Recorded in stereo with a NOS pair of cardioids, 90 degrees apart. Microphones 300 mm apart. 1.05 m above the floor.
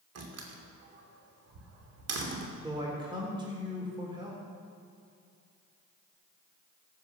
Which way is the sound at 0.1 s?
55° right.